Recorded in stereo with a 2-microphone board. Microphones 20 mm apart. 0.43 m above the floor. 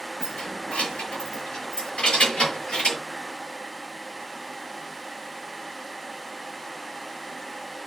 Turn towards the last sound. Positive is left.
turn(degrees=80)